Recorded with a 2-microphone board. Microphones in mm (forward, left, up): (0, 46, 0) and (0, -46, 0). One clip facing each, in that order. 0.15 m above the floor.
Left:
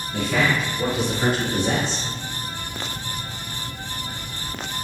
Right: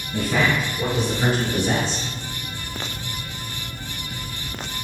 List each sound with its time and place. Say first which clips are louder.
0.1 s a man speaking: right 1 dB; 15° right (ahead or behind), 1.4 m; by 2.0 s 5° left (ahead or behind), 3 m